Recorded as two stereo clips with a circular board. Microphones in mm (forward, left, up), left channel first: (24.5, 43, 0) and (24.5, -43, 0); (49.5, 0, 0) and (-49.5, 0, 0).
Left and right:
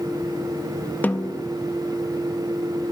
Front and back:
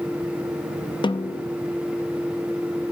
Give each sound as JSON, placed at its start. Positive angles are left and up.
{"t": 1.0, "sound": "a snare drum", "azimuth_deg": 20, "distance_m": 0.6}